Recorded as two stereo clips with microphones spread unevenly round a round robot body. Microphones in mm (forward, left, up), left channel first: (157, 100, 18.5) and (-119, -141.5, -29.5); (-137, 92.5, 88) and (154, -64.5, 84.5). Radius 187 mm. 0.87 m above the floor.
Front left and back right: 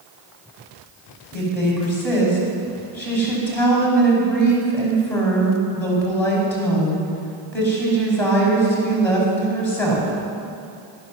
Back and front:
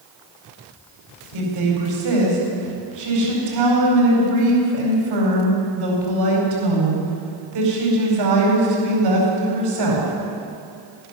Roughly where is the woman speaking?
Ahead right.